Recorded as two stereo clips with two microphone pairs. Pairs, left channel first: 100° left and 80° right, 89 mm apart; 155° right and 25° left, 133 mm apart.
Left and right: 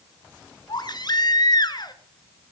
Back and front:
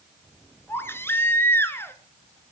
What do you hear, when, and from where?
0.7 s a baby crying: 135° left, 1.3 m